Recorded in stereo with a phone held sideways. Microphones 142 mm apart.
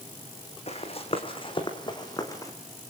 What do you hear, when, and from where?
0.7 s running footsteps: 45° left (ahead or behind), 4 m; by 2.5 s 20° left (ahead or behind), 3.5 m